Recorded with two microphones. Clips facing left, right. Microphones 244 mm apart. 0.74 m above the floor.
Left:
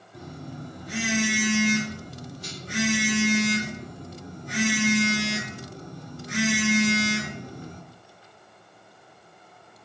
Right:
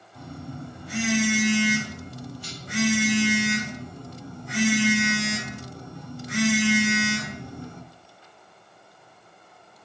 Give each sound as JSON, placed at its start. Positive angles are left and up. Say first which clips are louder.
{"t": 0.1, "sound": "a phone buzzing", "louder": "right 1 dB", "side_deg": 45, "distance_m": 2.0}